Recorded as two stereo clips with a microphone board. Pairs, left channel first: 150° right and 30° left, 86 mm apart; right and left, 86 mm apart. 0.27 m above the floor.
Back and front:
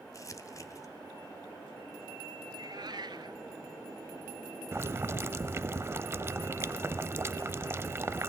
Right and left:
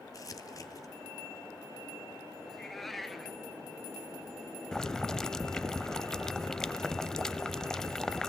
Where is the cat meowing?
5° right, 1.2 m.